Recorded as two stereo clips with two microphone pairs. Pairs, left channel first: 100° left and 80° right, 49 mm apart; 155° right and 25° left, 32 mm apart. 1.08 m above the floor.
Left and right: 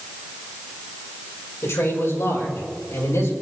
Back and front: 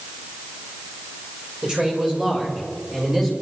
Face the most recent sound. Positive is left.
turn(degrees=100)